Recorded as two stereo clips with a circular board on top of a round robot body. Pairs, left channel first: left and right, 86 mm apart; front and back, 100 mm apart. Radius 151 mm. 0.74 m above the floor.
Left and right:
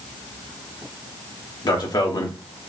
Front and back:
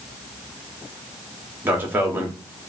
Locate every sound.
1.6 s a man speaking: 115° left, 1.4 m